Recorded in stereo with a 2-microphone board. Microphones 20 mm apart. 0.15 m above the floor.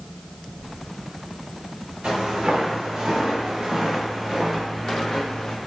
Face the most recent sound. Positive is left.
turn(degrees=30)  # may be behind; listen again after turning